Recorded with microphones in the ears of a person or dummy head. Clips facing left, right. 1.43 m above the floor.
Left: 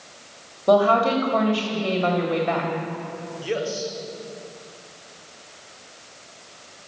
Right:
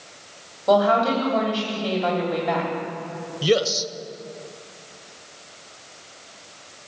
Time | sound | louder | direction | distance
0.7 | a woman speaking | left 1 dB | 25° left (ahead or behind) | 3 m
3.4 | a man speaking | right 6 dB | 40° right (ahead or behind) | 0.9 m